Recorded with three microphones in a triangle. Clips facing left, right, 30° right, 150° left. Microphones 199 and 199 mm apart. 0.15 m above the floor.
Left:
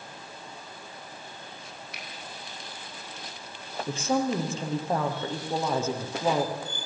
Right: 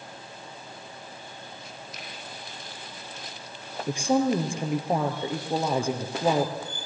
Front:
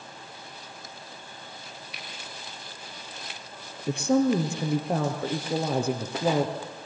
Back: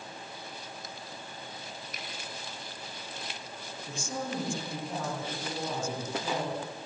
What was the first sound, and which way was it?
A finger snap, 110° left.